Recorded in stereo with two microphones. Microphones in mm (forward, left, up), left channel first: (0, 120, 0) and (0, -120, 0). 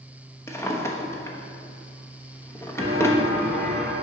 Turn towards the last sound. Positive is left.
turn(degrees=-40)  # may be behind; listen again after turning